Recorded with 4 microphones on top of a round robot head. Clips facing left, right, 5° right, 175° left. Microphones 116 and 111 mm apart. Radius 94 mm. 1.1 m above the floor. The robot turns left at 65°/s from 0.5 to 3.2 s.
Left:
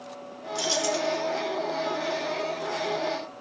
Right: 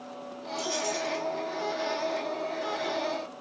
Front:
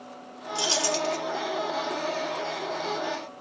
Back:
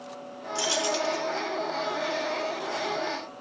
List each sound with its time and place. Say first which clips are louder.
0.6 s keys jangling: left 4 dB, even; 65° left, 0.7 m; by 1.2 s 25° left, 0.7 m